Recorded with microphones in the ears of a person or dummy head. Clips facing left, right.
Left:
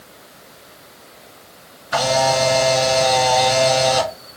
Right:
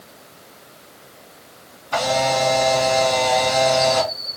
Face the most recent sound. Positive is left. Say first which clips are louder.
# left 2 dB
turn(degrees=20)  # may be behind; listen again after turning